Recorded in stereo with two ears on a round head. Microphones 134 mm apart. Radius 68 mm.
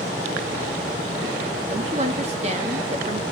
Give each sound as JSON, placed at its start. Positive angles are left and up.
{"t": 1.7, "sound": "a woman speaking", "side_deg": -45, "distance_m": 1.8}